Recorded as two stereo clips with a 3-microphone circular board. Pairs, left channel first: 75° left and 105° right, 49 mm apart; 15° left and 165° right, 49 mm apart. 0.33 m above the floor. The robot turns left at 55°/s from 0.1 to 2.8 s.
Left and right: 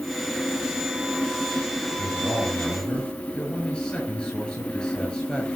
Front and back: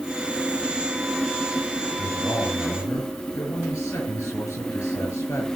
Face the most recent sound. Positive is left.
turn(degrees=5)